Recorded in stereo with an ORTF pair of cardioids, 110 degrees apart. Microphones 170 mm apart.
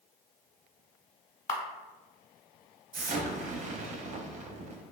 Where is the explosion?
45° right, 0.6 m.